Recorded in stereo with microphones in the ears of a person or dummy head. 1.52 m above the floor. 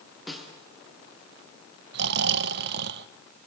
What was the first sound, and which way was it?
A snare drum, 5° left (ahead or behind).